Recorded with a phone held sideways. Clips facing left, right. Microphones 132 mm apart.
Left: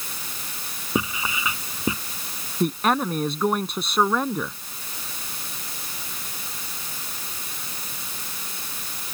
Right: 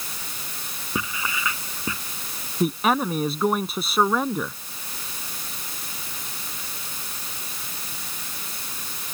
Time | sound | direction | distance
0.9 | writing | 20° left (ahead or behind) | ?
2.6 | a man speaking | centre (ahead or behind) | ?